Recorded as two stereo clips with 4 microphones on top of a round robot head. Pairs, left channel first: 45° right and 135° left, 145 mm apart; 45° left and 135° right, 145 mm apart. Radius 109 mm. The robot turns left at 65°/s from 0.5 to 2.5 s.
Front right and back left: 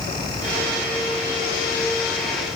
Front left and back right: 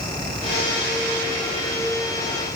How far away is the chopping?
I don't hear chopping.